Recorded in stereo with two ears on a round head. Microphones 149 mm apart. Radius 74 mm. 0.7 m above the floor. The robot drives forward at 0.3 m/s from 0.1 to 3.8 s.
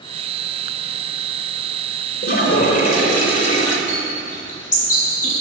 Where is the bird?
50° left (ahead or behind), 6 m.